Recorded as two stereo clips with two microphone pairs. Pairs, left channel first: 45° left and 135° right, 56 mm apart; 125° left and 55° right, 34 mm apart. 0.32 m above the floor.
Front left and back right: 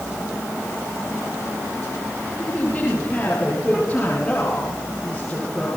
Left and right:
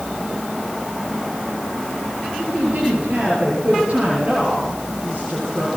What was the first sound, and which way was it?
A woman speaking, 15° right.